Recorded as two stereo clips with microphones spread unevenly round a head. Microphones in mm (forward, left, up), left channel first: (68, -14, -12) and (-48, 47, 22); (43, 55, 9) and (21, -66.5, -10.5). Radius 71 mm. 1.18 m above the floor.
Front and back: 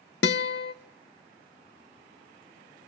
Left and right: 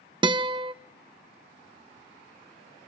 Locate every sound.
0.2 s a guitar: 45° right, 0.7 m